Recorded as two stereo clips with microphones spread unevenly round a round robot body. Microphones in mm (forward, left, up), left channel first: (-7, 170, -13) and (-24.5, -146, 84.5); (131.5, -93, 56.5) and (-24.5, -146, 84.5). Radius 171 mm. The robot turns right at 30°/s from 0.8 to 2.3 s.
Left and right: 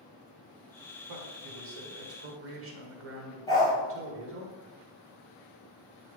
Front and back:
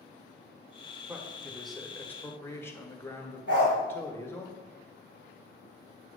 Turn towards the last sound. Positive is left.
turn(degrees=165)